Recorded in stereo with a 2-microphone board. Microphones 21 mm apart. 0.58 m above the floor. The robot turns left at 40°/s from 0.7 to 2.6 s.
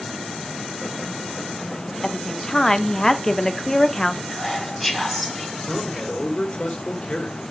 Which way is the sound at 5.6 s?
50° left (ahead or behind).